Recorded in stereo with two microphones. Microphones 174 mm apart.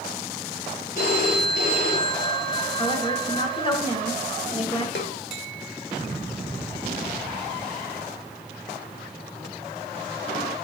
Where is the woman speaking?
35° left (ahead or behind), 1.8 m.